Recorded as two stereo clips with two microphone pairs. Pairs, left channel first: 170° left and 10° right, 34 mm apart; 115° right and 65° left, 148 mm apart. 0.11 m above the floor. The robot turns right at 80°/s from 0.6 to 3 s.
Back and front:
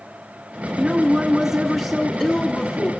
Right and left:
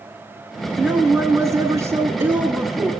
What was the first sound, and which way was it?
A woman speaking, 5° right.